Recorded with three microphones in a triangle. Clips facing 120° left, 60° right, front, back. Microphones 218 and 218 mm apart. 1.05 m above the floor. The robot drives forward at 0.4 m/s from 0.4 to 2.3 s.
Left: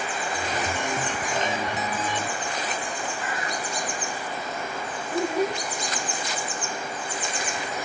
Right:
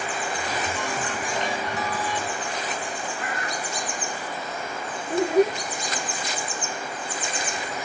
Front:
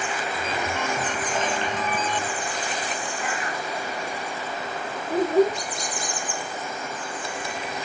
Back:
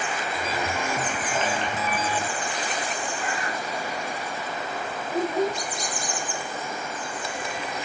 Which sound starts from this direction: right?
A bird, at 3.2 s.